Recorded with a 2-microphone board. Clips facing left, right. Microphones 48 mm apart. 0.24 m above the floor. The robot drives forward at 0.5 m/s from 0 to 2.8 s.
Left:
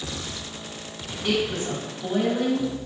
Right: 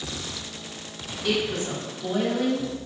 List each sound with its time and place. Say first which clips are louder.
1.2 s a woman speaking: left 1 dB; 30° left (ahead or behind), 1.5 m